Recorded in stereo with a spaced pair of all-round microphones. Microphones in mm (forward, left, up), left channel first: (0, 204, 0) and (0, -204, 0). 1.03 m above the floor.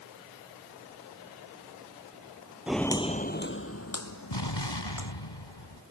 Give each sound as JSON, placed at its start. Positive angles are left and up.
{"t": 2.7, "sound": "footsteps", "side_deg": -5}
{"t": 4.3, "sound": "an explosion", "side_deg": 70}